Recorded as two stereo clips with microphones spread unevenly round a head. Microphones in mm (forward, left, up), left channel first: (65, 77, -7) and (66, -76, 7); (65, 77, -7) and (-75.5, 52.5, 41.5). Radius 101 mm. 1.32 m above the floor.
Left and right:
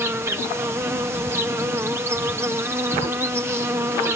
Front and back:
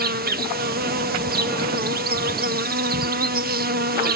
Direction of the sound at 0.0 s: 170° right.